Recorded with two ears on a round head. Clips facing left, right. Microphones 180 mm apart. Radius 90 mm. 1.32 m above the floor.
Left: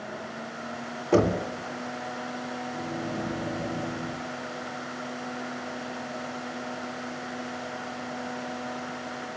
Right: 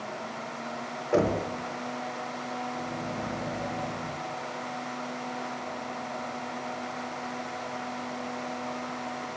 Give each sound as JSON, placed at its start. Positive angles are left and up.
{"t": 1.1, "sound": "knocking", "side_deg": 70, "distance_m": 2.5}
{"t": 2.7, "sound": "a microwave", "side_deg": 55, "distance_m": 8.0}